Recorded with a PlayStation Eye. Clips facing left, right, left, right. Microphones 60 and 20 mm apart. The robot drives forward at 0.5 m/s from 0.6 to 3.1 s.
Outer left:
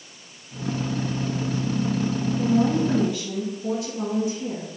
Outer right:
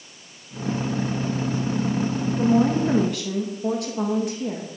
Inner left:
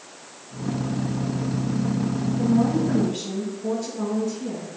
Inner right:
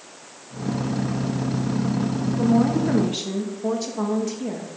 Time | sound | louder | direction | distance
2.4 | a woman speaking | outer right 2 dB, inner right 2 dB | 60° right (ahead or behind) | 1.9 m